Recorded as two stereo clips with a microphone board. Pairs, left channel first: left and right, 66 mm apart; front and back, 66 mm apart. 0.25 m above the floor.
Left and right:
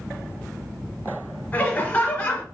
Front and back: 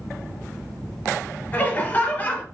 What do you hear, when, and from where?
1.5 s laughter: 35° left, 1.2 m